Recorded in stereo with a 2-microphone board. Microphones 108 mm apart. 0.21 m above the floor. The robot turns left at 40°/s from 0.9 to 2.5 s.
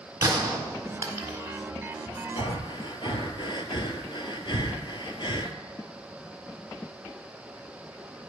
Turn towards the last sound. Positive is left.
turn(degrees=50)  # may be behind; listen again after turning